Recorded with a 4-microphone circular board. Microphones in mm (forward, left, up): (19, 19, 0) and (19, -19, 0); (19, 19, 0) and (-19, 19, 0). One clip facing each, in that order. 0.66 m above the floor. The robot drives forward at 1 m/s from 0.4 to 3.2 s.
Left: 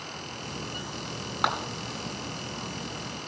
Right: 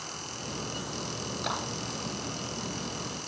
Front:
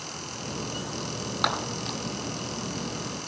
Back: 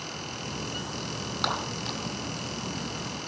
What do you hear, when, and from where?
1.4 s a clap: 70° left, 3.5 m